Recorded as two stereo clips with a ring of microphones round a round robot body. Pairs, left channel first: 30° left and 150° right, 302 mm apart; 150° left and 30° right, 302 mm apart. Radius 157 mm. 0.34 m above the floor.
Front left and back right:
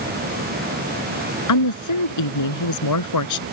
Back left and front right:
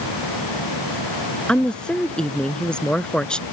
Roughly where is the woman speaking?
Ahead left.